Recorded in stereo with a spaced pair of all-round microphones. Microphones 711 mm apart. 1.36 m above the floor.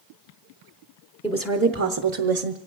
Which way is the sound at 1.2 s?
10° left (ahead or behind).